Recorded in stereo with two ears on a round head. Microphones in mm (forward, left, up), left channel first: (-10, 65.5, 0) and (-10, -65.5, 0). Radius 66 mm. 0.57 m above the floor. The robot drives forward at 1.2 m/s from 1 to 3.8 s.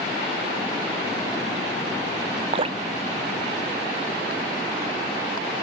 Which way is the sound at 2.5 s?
40° right (ahead or behind).